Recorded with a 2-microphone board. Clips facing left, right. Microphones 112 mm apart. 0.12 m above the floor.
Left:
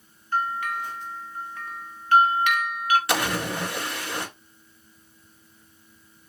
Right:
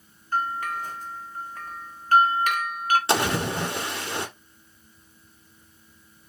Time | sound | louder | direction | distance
0.3 | a bell | left 1 dB | 40° right (ahead or behind) | 0.6 m
3.1 | a splash | right 2 dB | 25° right (ahead or behind) | 1.4 m